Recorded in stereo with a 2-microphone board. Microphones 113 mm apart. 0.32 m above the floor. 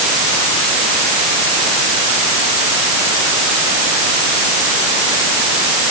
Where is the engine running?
I don't hear an engine running.